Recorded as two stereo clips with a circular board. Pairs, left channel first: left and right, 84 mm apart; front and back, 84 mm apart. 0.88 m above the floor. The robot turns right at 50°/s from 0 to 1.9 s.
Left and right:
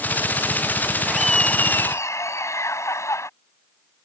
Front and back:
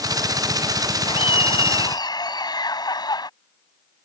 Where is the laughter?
10° right; by 3.3 s 35° left.